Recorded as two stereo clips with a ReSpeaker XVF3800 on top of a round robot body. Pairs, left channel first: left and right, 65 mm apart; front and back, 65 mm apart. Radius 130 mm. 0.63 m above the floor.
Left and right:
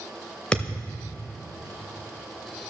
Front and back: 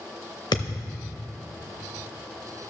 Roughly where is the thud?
Ahead.